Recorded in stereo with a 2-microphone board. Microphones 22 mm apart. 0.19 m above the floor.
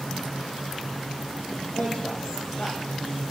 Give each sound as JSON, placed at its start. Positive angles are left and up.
{"t": 1.6, "sound": "a man speaking", "side_deg": 75, "distance_m": 8.5}